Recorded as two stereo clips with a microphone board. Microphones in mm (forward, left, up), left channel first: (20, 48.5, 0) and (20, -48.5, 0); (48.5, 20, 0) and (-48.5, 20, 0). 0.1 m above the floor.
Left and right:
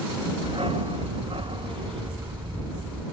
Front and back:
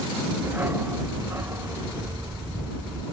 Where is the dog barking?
110° right; by 3.0 s 120° right.